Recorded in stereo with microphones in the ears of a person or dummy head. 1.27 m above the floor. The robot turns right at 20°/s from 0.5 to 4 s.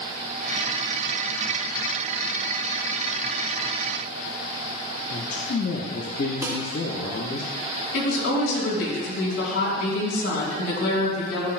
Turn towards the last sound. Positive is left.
turn(degrees=65)  # may be behind; listen again after turning